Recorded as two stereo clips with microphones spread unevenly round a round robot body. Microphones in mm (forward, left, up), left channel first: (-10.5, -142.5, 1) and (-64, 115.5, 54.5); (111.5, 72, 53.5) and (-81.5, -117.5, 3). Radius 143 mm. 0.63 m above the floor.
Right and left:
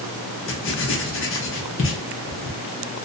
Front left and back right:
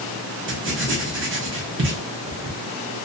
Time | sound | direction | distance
0.5 | writing | 105° right | 0.8 m